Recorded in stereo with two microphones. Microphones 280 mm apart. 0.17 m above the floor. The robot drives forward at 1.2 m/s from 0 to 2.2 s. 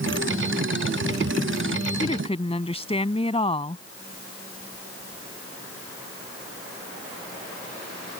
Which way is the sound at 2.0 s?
20° left (ahead or behind).